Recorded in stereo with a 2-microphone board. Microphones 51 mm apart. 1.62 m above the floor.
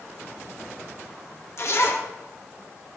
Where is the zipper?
55° left (ahead or behind), 1.3 m.